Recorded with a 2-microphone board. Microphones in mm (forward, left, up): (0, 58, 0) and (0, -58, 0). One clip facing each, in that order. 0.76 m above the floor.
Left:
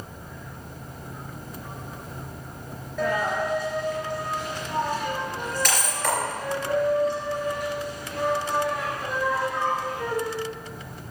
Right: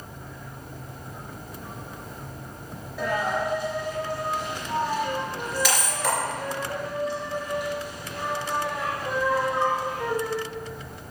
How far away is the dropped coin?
About 3.5 m.